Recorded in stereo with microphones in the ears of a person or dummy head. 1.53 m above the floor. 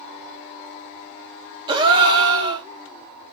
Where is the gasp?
20° right (ahead or behind), 1.6 m.